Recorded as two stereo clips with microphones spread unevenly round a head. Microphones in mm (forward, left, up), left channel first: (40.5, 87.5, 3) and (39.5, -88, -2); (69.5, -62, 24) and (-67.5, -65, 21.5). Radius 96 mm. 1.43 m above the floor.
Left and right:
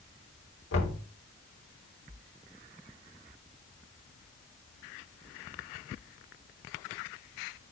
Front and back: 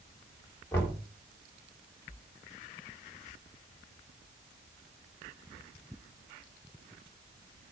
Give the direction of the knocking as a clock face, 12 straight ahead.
9 o'clock.